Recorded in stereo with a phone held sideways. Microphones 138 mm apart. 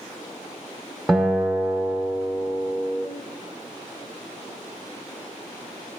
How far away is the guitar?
About 1.1 m.